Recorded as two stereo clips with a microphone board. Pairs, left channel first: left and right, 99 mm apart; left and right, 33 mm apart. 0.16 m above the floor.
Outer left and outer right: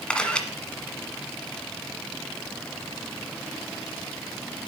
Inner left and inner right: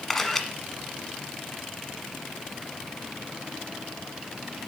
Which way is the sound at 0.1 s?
10° left (ahead or behind).